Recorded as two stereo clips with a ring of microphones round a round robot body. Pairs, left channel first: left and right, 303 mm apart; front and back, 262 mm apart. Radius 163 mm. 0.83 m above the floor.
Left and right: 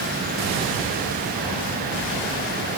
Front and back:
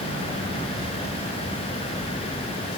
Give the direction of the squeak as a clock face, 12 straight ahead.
No squeak in this recording.